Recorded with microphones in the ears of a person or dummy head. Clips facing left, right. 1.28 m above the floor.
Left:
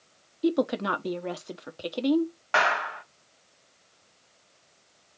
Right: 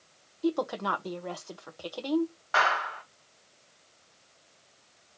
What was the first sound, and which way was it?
A woman speaking, 20° left (ahead or behind).